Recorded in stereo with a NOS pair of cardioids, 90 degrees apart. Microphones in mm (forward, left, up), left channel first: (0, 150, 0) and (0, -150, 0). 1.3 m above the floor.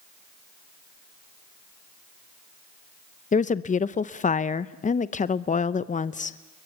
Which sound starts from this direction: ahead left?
A woman speaking, at 3.3 s.